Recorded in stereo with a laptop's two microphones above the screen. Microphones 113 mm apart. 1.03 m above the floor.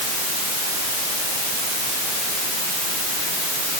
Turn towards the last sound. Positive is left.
No sound to turn to.